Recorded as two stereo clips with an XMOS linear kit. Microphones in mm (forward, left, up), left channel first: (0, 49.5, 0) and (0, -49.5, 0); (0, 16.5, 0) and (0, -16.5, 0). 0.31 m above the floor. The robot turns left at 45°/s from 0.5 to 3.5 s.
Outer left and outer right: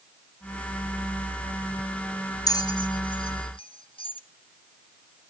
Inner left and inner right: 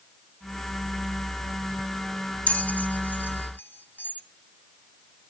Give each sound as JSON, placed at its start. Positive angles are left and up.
{"t": 2.5, "sound": "a bell", "side_deg": 40, "distance_m": 1.3}